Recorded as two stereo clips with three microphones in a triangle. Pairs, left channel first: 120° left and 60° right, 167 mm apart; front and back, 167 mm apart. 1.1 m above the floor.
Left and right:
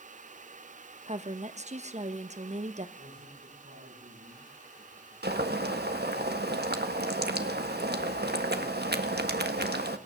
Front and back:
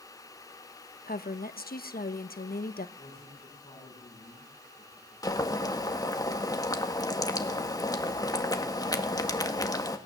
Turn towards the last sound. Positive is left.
turn(degrees=-70)